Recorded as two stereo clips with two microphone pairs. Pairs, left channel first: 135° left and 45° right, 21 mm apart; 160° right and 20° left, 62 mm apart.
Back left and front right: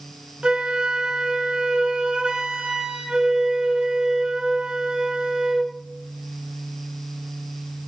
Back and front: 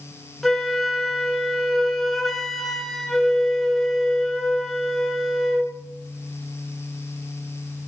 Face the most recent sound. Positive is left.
turn(degrees=-75)